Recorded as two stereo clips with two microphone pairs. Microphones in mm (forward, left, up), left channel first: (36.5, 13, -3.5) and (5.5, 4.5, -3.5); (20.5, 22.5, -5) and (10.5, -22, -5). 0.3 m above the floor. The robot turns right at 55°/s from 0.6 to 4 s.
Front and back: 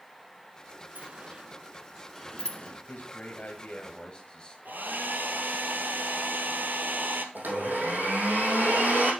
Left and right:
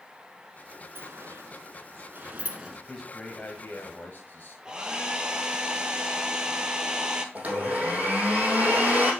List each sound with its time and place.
0.9 s a sliding door: 125° right, 1.2 m; by 2.8 s 25° right, 1.2 m
2.9 s a man speaking: straight ahead, 1.3 m; by 4.5 s 65° left, 1.3 m
4.7 s a hair dryer: 175° right, 1.1 m
7.3 s a blender: 160° right, 3 m